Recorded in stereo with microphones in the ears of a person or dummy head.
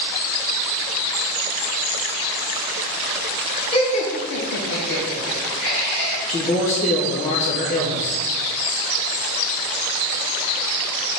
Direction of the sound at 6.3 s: 35° left (ahead or behind).